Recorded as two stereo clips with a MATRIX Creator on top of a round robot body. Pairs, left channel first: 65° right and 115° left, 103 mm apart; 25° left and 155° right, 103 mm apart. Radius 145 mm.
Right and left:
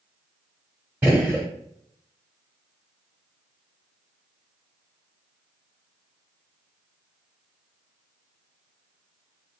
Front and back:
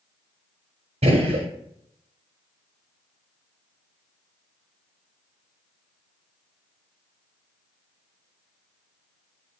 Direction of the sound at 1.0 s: 170° right.